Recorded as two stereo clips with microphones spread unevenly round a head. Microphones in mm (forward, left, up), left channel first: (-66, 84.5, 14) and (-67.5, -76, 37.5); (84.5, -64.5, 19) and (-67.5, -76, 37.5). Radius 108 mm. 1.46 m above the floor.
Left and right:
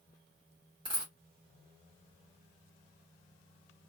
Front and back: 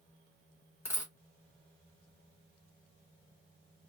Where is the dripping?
I don't hear dripping.